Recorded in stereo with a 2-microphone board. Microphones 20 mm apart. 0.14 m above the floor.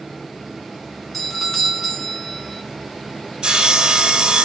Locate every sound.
1.1 s a doorbell: 10° left (ahead or behind), 1.8 m
3.4 s sawing: 45° right (ahead or behind), 1.3 m